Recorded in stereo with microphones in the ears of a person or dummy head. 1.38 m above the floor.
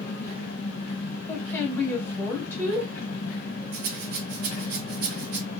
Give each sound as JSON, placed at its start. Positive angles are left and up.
{"t": 0.0, "sound": "an engine running", "side_deg": 50, "distance_m": 1.1}
{"t": 1.3, "sound": "a woman speaking", "side_deg": 15, "distance_m": 1.5}
{"t": 3.7, "sound": "a rattle", "side_deg": -50, "distance_m": 0.8}